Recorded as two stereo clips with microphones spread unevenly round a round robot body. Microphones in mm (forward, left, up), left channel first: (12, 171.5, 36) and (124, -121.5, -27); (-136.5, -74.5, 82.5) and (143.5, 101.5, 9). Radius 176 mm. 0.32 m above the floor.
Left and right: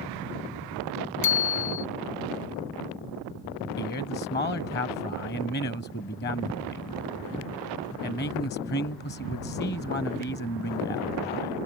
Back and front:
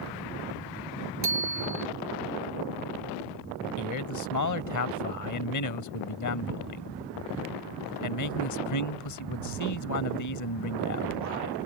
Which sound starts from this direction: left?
A bicycle bell, at 1.2 s.